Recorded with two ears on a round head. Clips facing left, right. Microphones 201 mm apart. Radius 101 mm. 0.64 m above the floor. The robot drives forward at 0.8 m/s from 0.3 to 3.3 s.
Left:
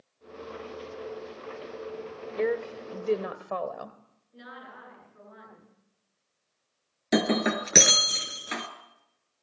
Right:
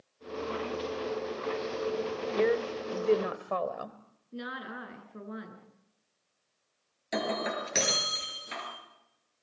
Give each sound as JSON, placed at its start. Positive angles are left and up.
{"t": 2.4, "sound": "a woman speaking", "side_deg": 0, "distance_m": 1.6}
{"t": 4.3, "sound": "a woman speaking", "side_deg": -70, "distance_m": 10.0}
{"t": 7.1, "sound": "breaking glass", "side_deg": 70, "distance_m": 4.0}